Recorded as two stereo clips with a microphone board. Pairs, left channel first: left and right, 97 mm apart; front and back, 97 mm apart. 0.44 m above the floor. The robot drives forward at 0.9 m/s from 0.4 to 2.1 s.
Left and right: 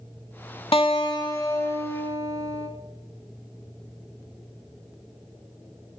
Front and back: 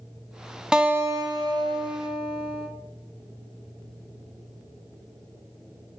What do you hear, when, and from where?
0.7 s a guitar: 95° left, 0.7 m; by 2.7 s 155° left, 1.5 m